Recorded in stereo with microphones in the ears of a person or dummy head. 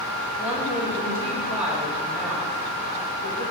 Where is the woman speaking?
5° right (ahead or behind), 2.0 m.